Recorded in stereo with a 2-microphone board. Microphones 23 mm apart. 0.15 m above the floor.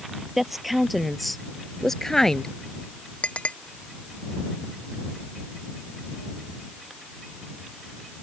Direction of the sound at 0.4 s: 5° right (ahead or behind).